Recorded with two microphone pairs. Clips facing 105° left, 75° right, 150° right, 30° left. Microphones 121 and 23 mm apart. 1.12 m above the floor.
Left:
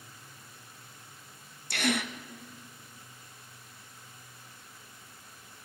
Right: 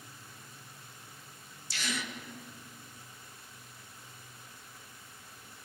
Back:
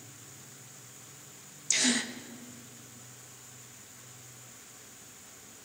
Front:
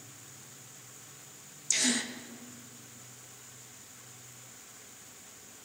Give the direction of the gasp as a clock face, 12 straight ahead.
8 o'clock.